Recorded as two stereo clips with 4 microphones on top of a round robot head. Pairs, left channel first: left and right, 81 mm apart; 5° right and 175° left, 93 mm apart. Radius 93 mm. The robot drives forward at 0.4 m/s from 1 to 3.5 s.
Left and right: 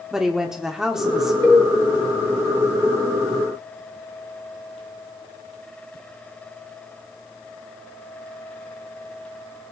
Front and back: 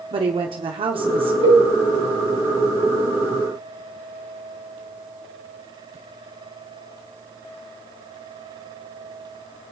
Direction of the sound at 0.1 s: 175° right.